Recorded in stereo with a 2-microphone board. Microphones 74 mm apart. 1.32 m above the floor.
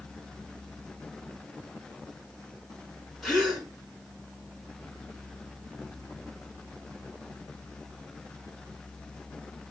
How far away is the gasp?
About 5 m.